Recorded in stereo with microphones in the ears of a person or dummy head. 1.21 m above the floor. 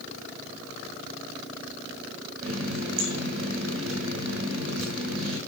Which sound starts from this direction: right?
A running tap, at 2.4 s.